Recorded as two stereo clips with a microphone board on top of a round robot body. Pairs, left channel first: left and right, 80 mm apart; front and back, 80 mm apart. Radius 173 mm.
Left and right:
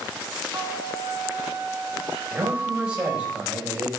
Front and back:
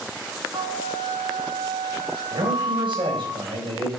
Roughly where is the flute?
Behind right.